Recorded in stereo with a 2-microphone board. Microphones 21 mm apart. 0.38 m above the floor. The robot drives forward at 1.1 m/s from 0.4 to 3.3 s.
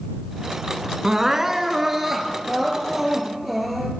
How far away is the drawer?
No drawer in this recording.